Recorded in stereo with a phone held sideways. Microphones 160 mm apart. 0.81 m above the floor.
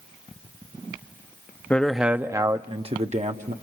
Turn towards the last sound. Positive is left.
turn(degrees=-50)  # may be behind; listen again after turning